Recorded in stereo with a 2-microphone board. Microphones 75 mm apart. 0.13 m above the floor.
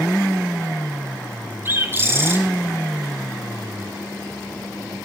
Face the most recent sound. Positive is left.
turn(degrees=-30)  # may be behind; listen again after turning